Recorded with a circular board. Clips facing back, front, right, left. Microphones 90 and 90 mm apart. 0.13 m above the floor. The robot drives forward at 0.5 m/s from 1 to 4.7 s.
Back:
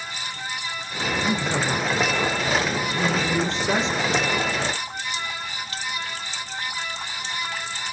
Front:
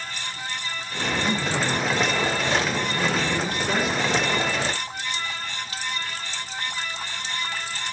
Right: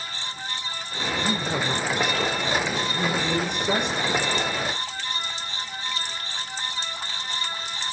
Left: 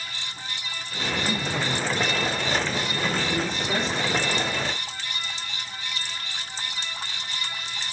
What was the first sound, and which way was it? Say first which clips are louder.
A man speaking: back 1 dB, right 2 dB; 100° right.